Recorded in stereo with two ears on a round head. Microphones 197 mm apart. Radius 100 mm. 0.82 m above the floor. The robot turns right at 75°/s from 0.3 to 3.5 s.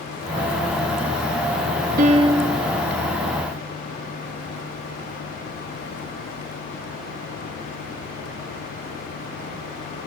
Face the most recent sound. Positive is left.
turn(degrees=70)